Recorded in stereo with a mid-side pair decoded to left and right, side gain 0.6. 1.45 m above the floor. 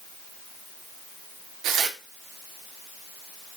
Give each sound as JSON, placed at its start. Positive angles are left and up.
{"t": 1.6, "sound": "tearing paper", "azimuth_deg": -60, "distance_m": 2.0}